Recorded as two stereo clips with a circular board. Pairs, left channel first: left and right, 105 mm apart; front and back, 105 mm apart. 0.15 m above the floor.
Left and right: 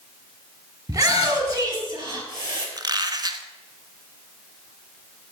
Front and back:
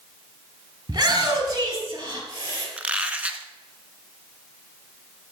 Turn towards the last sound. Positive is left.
turn(degrees=-110)